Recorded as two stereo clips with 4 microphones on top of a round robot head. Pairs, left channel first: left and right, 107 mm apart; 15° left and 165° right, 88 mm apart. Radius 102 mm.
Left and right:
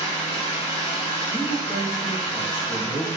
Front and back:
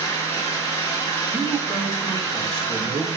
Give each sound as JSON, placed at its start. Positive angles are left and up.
{"t": 0.0, "sound": "an engine running", "azimuth_deg": 60, "distance_m": 1.5}
{"t": 1.3, "sound": "a woman speaking", "azimuth_deg": 95, "distance_m": 0.8}